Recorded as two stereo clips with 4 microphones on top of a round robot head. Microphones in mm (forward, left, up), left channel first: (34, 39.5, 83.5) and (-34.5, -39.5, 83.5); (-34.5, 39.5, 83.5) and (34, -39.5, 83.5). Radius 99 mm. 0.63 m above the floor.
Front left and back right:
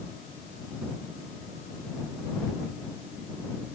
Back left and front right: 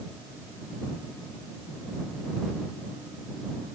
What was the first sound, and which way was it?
Only background noise.